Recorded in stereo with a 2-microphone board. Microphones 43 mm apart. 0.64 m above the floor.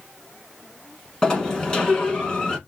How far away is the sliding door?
About 1.0 m.